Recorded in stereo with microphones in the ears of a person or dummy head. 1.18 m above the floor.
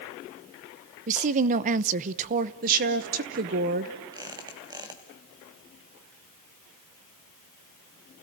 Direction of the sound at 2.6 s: 45° right (ahead or behind).